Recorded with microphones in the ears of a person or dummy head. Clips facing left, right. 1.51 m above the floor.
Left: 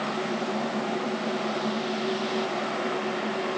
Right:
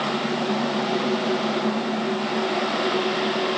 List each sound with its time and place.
Only background noise.